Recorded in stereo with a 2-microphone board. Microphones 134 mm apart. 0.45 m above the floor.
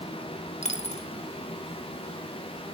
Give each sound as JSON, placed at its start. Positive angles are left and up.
{"t": 0.6, "sound": "a dropped coin", "side_deg": 55, "distance_m": 1.1}